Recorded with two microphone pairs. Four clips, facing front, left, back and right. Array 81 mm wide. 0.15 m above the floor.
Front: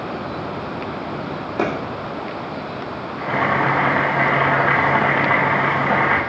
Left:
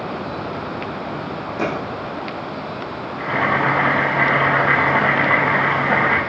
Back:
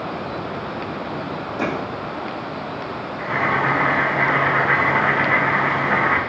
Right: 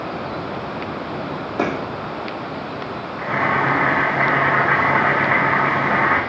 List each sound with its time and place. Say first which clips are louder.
1.6 s a clap: right 2 dB, front 3 dB; 20° right, 5 m
3.2 s boiling: even, front 2 dB; 25° left, 3 m